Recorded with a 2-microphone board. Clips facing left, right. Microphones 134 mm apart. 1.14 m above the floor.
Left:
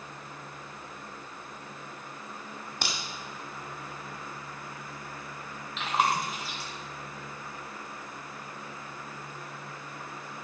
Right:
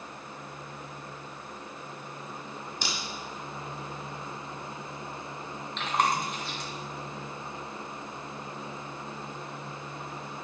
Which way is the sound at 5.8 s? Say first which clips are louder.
Even; 5° left (ahead or behind).